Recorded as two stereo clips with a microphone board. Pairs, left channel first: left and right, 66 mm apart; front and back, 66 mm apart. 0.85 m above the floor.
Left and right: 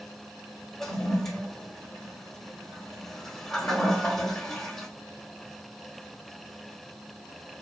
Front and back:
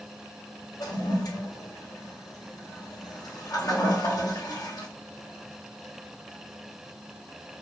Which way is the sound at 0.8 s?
5° left.